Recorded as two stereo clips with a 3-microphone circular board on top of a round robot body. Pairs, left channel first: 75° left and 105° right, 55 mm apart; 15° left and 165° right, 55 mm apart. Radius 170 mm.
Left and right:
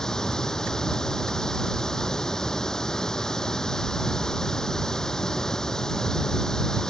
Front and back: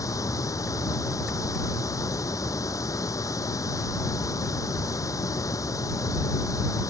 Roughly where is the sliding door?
No sliding door in this recording.